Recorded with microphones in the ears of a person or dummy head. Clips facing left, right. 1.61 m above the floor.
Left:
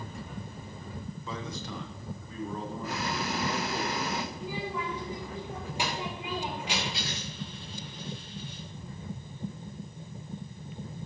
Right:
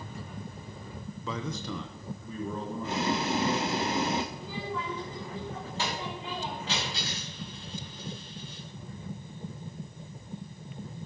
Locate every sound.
1.2 s a man speaking: 55° right (ahead or behind), 0.7 m; by 3.8 s 85° right, 3.5 m
2.8 s boiling: 20° right (ahead or behind), 0.8 m
4.3 s a child speaking: 10° left (ahead or behind), 2.5 m
6.8 s a dropped coin: 30° right (ahead or behind), 6 m